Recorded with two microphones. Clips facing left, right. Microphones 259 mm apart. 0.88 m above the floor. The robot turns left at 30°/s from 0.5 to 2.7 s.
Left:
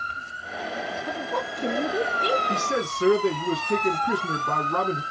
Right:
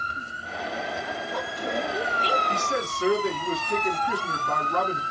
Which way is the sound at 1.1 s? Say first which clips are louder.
Left 3 dB; 60° left (ahead or behind).